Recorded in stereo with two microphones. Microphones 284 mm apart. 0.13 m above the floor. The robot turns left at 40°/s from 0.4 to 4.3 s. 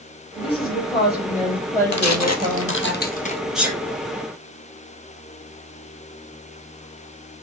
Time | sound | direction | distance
0.4 | a woman speaking | 65° left | 3 m
1.9 | tearing paper | 75° left (ahead or behind) | 1.1 m
3.5 | a sneeze | centre (ahead or behind) | 3 m